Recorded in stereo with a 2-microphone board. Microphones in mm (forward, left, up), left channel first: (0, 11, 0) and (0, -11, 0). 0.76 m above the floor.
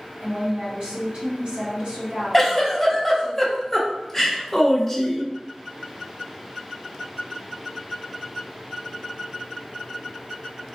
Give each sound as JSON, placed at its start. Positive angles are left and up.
{"t": 0.2, "sound": "a woman speaking", "side_deg": -55, "distance_m": 1.9}
{"t": 2.3, "sound": "a giggle", "side_deg": 5, "distance_m": 0.7}